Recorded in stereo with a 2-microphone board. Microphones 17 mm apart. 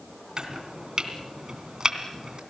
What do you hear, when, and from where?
0.4 s chopping: 50° right (ahead or behind), 2.5 m